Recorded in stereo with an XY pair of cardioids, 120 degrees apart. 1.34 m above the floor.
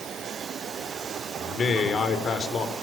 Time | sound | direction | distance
1.4 | a man speaking | 40° left | 4.5 m